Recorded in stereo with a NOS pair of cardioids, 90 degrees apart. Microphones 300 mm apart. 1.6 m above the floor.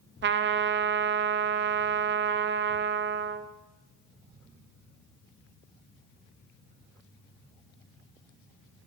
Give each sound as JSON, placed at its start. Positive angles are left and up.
{"t": 0.2, "sound": "a trumpet", "azimuth_deg": -35, "distance_m": 0.6}